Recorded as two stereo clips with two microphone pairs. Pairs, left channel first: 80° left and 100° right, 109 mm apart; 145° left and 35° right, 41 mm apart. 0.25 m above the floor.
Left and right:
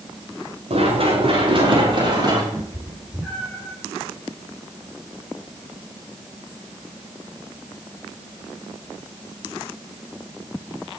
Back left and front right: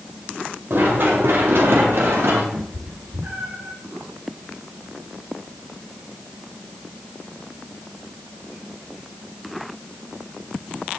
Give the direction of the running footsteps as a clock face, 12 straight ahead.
2 o'clock.